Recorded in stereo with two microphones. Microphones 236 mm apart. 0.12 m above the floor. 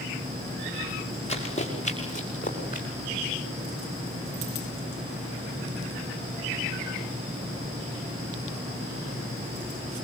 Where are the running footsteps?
25° left (ahead or behind), 6.5 m; by 2.9 s 35° left (ahead or behind), 6 m.